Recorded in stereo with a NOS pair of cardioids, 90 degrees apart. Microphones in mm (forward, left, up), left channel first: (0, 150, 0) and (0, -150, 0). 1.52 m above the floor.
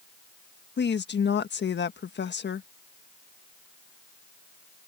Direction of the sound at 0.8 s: 35° left.